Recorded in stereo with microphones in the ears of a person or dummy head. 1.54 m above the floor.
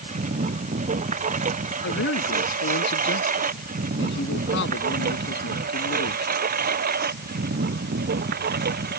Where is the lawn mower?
40° right (ahead or behind); by 9.0 s 50° right (ahead or behind).